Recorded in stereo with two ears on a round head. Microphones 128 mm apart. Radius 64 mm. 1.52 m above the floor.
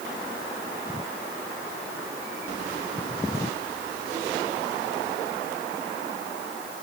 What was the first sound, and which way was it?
Only background noise.